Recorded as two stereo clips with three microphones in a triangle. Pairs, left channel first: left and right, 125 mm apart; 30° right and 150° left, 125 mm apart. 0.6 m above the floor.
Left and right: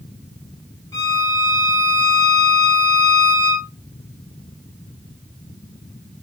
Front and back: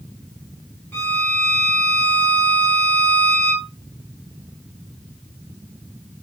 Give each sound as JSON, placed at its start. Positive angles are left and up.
{"t": 0.9, "sound": "a violin", "azimuth_deg": 35, "distance_m": 1.5}